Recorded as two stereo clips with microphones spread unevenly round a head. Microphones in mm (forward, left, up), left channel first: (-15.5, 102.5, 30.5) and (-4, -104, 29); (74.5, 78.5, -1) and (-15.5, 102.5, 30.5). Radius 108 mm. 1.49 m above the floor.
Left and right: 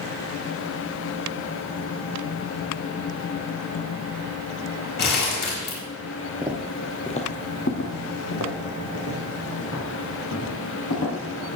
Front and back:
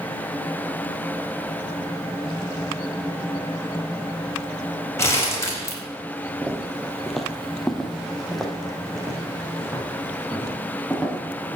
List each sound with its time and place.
5.0 s crumpling: 50° left, 5 m
6.4 s footsteps: 160° right, 1.6 m; by 11.6 s 75° left, 7.5 m